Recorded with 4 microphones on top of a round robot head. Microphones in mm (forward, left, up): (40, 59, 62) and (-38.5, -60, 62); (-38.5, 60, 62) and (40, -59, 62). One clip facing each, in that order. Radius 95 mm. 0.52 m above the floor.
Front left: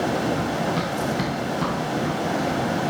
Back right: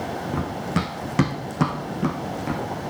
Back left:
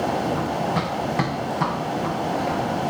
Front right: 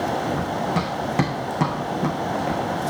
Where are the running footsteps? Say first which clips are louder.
Front left 3 dB, even; 140° right, 2.5 m; by 2.6 s 100° right, 2.5 m.